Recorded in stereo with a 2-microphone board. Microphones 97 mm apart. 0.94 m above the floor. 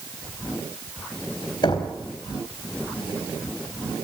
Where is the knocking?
50° left (ahead or behind), 4 m.